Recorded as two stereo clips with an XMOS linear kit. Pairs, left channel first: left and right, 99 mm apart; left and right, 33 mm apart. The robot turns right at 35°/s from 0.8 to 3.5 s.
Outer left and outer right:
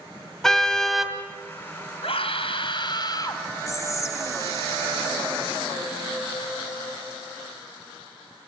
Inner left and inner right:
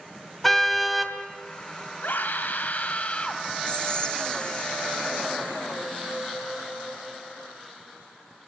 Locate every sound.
0.4 s a car horn: 5° left (ahead or behind), 2.5 m; by 1.2 s 10° right (ahead or behind), 2.5 m
2.0 s a scream: 95° left, 4 m; by 3.4 s 145° left, 4 m
3.7 s whispering: 35° left (ahead or behind), 1.4 m